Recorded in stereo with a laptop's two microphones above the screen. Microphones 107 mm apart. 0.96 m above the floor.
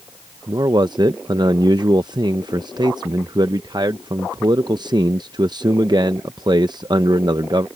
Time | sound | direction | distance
0.5 | a man speaking | 45° right (ahead or behind) | ?